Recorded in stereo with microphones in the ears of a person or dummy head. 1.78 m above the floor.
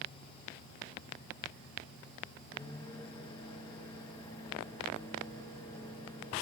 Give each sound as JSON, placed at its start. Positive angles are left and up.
{"t": 2.5, "sound": "a microwave", "side_deg": 15, "distance_m": 2.0}